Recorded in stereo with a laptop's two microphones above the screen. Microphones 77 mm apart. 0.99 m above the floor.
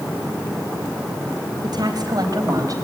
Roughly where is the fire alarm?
No fire alarm in this recording.